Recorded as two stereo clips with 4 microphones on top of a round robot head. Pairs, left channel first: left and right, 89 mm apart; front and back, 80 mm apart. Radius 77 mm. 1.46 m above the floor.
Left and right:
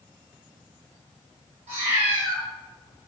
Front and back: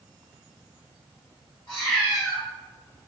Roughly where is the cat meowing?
Ahead right.